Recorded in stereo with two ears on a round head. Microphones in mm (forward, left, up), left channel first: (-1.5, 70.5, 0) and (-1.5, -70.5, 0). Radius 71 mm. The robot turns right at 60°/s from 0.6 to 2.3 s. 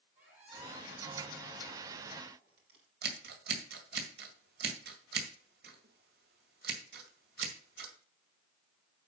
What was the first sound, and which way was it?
A squeak, 10° right (ahead or behind).